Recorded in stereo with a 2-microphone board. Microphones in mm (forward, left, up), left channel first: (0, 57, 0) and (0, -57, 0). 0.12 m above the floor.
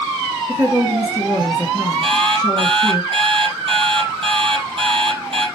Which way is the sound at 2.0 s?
55° right (ahead or behind).